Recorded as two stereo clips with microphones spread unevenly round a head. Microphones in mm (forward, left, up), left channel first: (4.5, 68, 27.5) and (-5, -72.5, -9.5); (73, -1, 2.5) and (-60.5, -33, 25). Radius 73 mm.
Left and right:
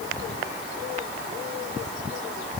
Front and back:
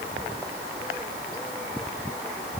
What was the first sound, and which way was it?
Only background noise.